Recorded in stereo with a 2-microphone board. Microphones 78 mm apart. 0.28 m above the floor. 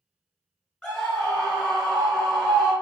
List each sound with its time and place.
0.8 s a scream: centre (ahead or behind), 1.4 m